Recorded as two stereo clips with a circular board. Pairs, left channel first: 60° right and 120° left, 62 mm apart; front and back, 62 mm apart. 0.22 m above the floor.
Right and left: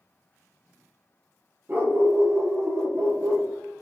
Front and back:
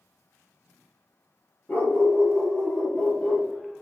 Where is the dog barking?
65° left, 1.8 m; by 3.5 s 95° left, 2 m.